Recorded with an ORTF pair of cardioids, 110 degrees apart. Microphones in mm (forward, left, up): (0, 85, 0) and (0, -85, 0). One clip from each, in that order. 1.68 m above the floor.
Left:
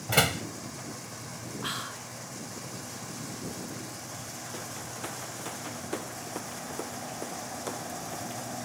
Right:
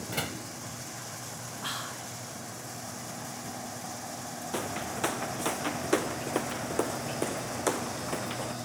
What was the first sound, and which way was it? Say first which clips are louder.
A door slam: left 10 dB; 60° left.